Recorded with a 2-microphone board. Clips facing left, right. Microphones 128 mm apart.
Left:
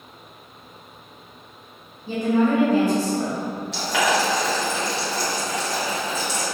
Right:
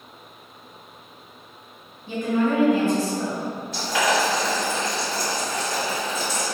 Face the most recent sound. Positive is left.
turn(degrees=85)